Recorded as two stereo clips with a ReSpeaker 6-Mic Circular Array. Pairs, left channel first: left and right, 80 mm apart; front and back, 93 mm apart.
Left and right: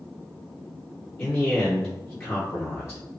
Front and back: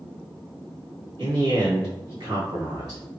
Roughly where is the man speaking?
Behind left.